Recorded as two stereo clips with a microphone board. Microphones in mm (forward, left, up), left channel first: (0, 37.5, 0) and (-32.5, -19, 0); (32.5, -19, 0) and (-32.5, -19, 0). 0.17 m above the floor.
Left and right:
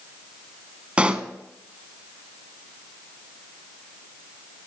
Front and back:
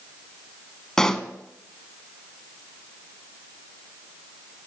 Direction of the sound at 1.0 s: 70° right.